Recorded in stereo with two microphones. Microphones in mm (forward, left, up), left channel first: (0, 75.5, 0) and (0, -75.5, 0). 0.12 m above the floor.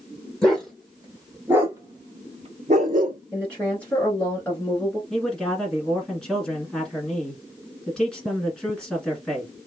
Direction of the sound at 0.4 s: 5° left (ahead or behind).